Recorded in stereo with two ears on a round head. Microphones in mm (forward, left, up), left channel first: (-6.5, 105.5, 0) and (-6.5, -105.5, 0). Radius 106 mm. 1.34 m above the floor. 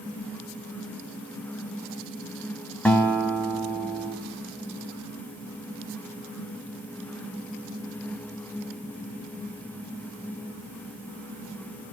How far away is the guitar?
About 1.6 m.